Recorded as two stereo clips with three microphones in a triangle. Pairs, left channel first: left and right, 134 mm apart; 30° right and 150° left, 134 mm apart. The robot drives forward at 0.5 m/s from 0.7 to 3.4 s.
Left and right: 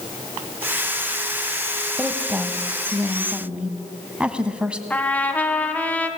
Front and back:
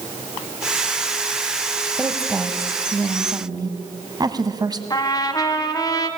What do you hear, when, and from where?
2.0 s a woman speaking: 150° right, 1.3 m; by 4.8 s 170° right, 1.7 m
4.9 s a trumpet: 15° left, 1.9 m